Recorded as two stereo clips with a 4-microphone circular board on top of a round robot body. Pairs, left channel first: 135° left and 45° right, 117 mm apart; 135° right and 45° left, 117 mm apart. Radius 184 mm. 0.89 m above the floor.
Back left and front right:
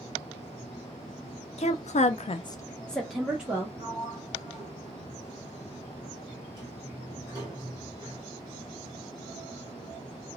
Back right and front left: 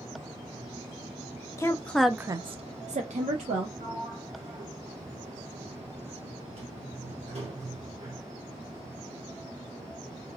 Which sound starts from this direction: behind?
A woman speaking, at 1.6 s.